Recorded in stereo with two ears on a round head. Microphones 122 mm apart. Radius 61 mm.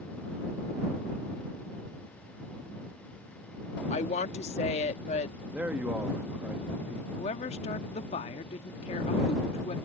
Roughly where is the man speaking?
Centre.